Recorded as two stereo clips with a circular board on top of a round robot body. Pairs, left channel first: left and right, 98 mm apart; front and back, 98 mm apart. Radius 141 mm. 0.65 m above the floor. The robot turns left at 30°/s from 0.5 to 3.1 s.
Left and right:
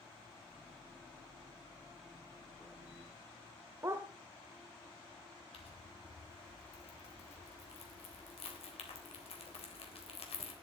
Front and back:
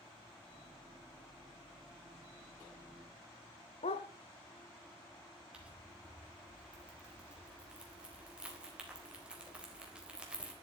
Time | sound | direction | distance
3.8 | a dog barking | 25° right | 0.7 m
5.5 | crumpling | 100° left | 4 m